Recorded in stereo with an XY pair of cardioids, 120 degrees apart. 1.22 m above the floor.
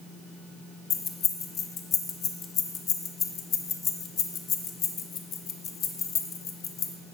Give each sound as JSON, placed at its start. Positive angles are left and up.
{"t": 0.9, "sound": "keys jangling", "azimuth_deg": 50, "distance_m": 0.6}